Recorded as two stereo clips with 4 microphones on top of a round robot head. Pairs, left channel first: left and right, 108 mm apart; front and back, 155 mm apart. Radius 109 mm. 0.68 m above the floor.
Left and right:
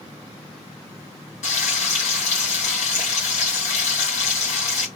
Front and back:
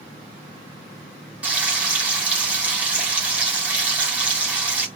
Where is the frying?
95° left, 2.5 m.